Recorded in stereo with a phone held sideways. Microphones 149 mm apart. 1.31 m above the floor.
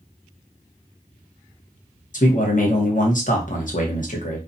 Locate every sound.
2.1 s a man speaking: 60° left (ahead or behind), 0.9 m